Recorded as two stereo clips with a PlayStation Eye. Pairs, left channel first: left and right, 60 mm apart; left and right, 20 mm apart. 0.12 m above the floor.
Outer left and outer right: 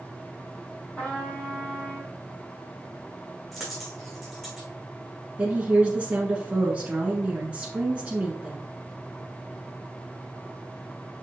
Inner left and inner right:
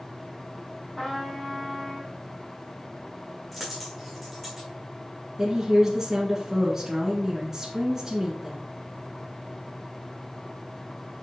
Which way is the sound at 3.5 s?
Centre (ahead or behind).